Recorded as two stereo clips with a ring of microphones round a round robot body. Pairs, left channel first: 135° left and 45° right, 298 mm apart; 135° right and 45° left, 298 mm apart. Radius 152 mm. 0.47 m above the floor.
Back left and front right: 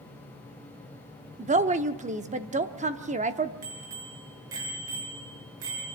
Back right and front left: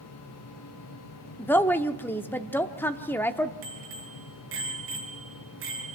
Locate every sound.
1.4 s a woman speaking: 60° right, 0.7 m
3.6 s a bicycle bell: 5° right, 5 m